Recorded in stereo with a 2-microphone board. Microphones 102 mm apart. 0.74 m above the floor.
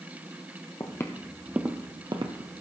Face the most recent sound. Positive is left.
turn(degrees=-60)  # may be behind; listen again after turning